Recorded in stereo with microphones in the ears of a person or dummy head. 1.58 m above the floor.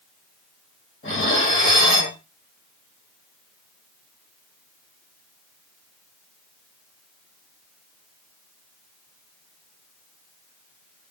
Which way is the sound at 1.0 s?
45° left (ahead or behind).